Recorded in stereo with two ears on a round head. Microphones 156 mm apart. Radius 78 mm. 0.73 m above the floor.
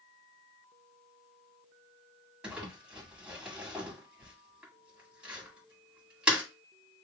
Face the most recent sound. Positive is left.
turn(degrees=-5)  # may be behind; listen again after turning